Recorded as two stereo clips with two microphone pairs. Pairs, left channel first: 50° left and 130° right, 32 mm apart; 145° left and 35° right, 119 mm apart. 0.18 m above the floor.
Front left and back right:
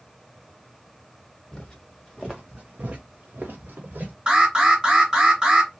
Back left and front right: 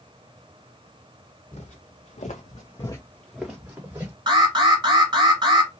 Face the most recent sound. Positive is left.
turn(degrees=-70)